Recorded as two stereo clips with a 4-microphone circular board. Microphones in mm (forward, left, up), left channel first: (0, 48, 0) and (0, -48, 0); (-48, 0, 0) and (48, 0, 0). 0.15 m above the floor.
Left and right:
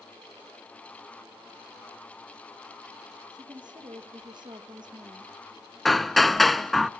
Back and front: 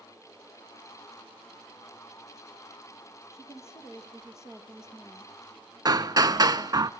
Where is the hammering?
5° left, 0.5 m.